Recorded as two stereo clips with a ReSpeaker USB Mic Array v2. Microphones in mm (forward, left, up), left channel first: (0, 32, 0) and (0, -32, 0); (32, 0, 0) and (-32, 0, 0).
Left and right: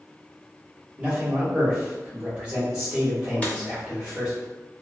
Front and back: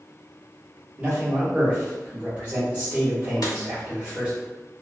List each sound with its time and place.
1.0 s a man speaking: 140° right, 1.3 m
3.4 s a dropped coin: 20° left, 0.7 m